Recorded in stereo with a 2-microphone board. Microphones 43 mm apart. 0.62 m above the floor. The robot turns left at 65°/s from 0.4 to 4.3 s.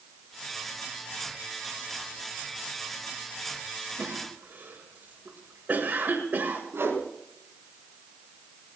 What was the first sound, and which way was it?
A cough, 70° right (ahead or behind).